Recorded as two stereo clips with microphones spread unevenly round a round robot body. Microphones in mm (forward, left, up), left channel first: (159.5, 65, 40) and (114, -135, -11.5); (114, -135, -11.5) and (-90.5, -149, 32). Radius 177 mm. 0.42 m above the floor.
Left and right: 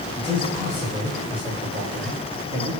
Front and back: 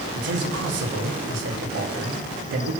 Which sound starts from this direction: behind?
A man speaking, at 0.1 s.